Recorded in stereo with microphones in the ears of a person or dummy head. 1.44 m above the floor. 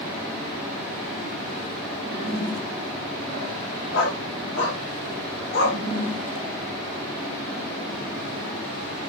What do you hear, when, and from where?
3.9 s a dog barking: 85° left, 7 m; by 5.8 s 70° left (ahead or behind), 5.5 m